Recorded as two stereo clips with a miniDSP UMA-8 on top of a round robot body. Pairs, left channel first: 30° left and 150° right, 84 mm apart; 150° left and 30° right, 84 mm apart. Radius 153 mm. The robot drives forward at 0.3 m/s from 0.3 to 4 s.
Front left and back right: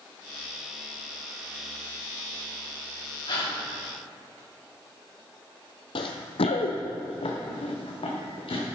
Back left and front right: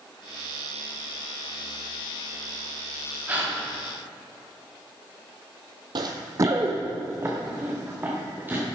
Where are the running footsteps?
5° left, 0.7 m; by 8.7 s 40° left, 3.5 m.